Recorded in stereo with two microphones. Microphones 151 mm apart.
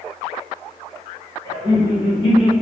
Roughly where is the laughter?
Left.